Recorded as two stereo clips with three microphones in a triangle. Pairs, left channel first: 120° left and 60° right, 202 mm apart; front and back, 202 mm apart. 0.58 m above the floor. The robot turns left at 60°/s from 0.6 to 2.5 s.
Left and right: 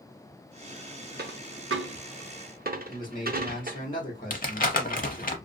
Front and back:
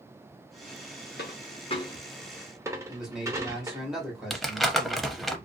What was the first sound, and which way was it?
A dropped coin, 30° right.